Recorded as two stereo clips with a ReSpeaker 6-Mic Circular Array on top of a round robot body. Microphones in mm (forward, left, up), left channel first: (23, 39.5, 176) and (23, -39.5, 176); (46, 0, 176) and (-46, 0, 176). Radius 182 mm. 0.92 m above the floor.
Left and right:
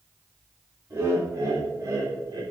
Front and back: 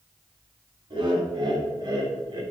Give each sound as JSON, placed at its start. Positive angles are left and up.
{"t": 0.9, "sound": "laughter", "azimuth_deg": -145, "distance_m": 4.0}